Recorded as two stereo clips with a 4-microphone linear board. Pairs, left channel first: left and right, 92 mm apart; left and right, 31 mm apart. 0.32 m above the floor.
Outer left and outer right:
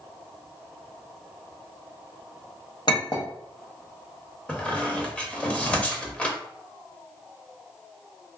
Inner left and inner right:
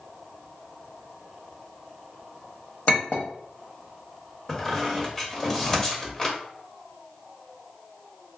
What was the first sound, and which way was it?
A clink, 50° left (ahead or behind).